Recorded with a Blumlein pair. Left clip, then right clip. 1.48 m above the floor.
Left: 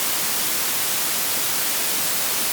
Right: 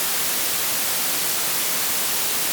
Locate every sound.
Only background noise.